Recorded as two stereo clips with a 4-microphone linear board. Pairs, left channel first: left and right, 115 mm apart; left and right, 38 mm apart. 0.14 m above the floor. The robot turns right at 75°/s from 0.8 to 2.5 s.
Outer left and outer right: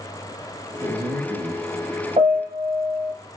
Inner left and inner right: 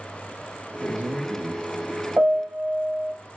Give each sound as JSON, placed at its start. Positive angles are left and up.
{"t": 0.8, "sound": "a man speaking", "azimuth_deg": -140, "distance_m": 2.5}
{"t": 2.2, "sound": "a piano", "side_deg": -60, "distance_m": 1.1}